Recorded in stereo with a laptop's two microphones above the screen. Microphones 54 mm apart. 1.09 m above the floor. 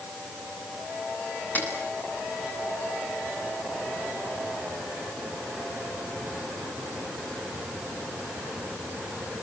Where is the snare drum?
30° left (ahead or behind), 7 m.